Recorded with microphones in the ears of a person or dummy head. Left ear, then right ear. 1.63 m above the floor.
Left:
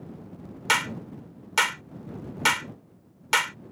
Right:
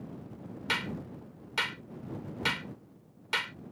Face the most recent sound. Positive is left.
turn(degrees=35)  # may be behind; listen again after turning